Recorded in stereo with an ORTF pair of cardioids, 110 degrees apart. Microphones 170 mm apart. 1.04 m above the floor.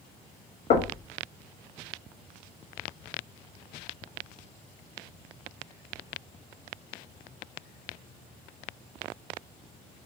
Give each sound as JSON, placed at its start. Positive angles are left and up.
{"t": 0.7, "sound": "knocking", "azimuth_deg": 45, "distance_m": 1.2}